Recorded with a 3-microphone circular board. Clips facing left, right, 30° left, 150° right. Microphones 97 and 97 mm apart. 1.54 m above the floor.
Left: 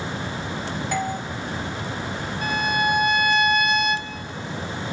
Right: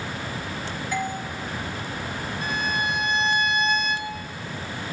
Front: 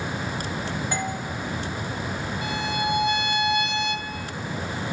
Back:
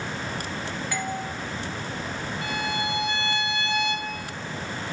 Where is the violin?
100° left, 2.5 m.